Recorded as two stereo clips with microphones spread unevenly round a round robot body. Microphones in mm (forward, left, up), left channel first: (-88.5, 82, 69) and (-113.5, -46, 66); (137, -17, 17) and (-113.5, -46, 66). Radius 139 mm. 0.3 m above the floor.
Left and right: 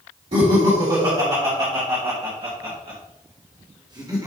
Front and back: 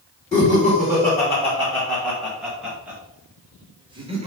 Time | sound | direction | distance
0.3 | laughter | 65° right | 3.5 m